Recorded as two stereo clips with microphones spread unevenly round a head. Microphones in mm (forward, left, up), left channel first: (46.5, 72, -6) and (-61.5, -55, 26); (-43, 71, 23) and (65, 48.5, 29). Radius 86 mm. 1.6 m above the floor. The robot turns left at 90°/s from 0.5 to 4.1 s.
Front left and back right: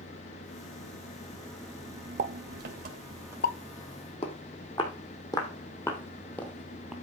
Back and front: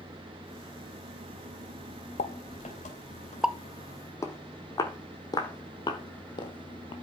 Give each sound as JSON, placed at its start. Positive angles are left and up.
{"t": 0.0, "sound": "an engine running", "azimuth_deg": 55, "distance_m": 3.0}
{"t": 2.2, "sound": "a pop", "azimuth_deg": -175, "distance_m": 1.1}
{"t": 4.2, "sound": "footsteps", "azimuth_deg": 110, "distance_m": 3.0}